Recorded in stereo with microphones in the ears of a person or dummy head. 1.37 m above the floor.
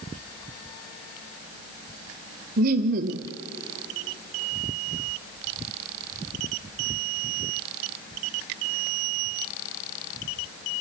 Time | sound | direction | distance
2.6 | laughter | 50° right (ahead or behind) | 0.9 m